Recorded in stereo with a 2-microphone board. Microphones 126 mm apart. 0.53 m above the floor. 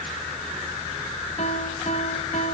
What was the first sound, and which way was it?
A piano, 65° left (ahead or behind).